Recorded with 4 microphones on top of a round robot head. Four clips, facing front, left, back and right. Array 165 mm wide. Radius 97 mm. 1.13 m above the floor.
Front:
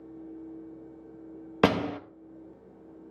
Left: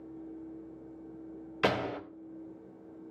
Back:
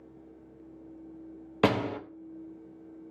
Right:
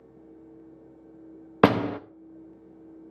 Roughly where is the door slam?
Right.